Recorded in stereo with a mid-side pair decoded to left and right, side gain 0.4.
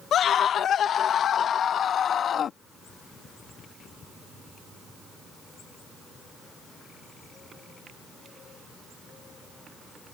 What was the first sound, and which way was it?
A scream, 70° left.